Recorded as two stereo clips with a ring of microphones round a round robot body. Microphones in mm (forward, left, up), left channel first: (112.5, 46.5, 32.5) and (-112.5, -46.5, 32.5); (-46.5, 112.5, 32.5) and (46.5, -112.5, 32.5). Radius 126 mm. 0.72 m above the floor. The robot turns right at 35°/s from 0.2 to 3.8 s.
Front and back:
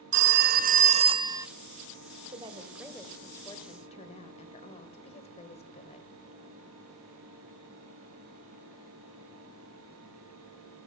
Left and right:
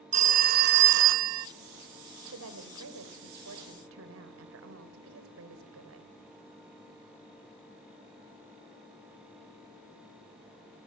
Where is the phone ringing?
125° right, 0.5 m; by 1.5 s 80° right, 0.5 m.